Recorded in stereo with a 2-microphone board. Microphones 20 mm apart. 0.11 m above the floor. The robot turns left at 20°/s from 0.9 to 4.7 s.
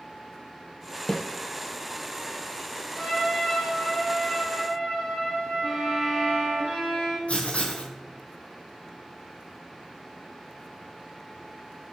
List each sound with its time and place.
1.1 s a snare drum: 20° left (ahead or behind), 0.8 m; by 1.2 s 25° left (ahead or behind), 0.8 m
3.0 s a trumpet: 145° left, 2 m; by 6.6 s 110° left, 2 m
5.6 s a violin: 75° left (ahead or behind), 3 m
7.3 s writing: 75° left (ahead or behind), 1.3 m